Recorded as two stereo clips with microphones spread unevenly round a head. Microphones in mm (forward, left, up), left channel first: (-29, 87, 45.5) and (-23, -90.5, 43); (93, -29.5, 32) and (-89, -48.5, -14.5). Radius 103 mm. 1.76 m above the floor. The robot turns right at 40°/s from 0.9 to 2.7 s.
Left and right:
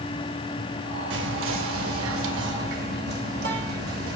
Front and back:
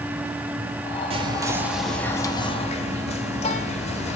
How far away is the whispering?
About 0.7 m.